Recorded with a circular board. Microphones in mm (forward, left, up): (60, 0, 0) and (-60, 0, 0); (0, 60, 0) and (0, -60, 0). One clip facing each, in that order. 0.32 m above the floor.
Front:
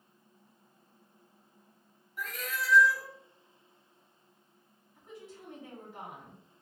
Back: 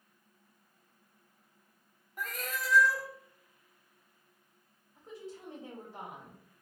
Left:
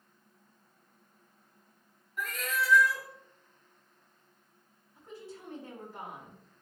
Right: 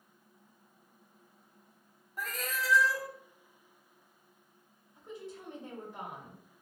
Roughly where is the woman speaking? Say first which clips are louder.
Back 3 dB, right 1 dB; behind right.